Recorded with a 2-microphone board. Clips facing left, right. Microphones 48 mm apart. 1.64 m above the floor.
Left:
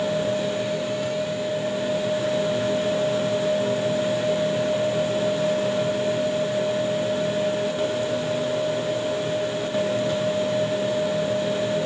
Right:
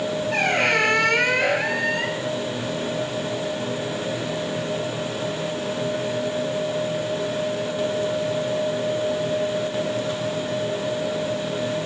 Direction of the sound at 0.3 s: 65° right (ahead or behind).